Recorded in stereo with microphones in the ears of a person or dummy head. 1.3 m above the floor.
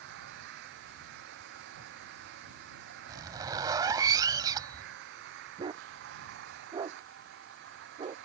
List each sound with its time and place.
0.0 s an engine running: 55° right (ahead or behind)
3.1 s a zipper: 20° right (ahead or behind)
5.6 s a dog barking: 20° right (ahead or behind)